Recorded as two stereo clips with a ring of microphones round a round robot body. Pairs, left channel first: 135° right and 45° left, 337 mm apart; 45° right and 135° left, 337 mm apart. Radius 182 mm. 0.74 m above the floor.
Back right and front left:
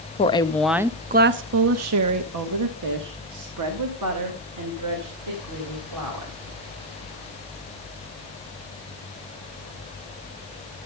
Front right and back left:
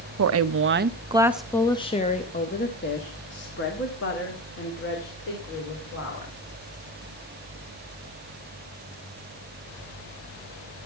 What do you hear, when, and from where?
0.2 s a woman speaking: 160° left, 0.8 m; by 6.3 s 5° left, 3.5 m